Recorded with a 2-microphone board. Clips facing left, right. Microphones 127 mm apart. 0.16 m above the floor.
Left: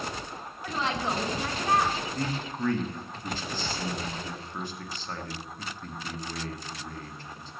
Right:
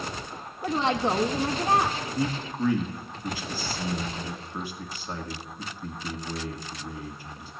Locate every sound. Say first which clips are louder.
0.6 s a woman speaking: right 5 dB; 25° right (ahead or behind), 1.2 m
2.1 s a man speaking: right 3 dB; 10° right (ahead or behind), 1.4 m